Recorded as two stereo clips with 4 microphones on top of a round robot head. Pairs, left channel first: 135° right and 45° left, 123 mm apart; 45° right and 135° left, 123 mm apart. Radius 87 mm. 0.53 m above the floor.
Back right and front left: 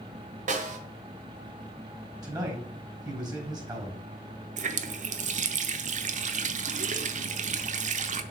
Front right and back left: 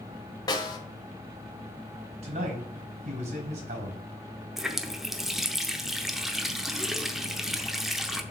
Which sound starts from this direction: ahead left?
A running tap, at 4.6 s.